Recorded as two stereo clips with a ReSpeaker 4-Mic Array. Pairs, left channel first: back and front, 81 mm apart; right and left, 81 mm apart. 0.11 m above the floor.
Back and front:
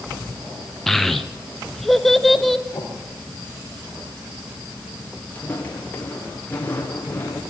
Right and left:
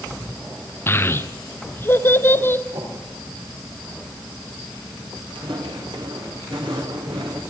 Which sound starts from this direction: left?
Footsteps, at 5.3 s.